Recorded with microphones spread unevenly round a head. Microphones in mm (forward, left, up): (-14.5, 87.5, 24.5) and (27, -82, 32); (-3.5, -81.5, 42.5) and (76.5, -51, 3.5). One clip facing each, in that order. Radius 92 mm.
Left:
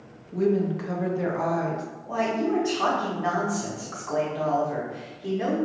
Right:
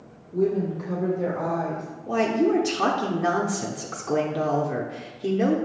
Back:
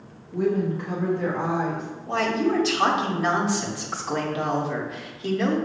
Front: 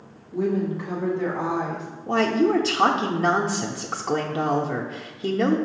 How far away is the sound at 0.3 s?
About 1.0 m.